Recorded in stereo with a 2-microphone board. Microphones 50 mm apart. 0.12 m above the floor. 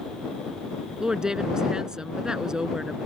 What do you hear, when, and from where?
1.0 s a woman speaking: 15° right (ahead or behind)